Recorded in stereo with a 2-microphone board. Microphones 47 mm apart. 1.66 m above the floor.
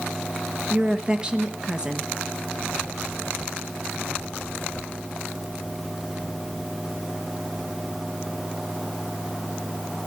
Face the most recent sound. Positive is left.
turn(degrees=-20)  # may be behind; listen again after turning